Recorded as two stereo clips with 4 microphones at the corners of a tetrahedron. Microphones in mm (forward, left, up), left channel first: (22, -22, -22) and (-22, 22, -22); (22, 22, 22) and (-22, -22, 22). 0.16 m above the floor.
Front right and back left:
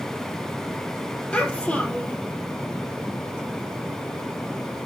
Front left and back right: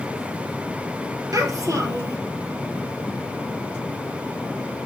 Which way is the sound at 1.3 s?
115° right.